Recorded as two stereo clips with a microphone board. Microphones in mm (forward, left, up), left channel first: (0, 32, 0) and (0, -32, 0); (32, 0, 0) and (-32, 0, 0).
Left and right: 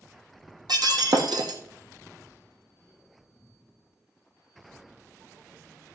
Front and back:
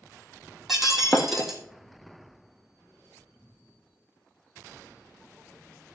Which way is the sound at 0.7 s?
95° right.